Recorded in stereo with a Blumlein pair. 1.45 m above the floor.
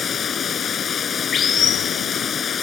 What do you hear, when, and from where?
0.0 s running water: 20° left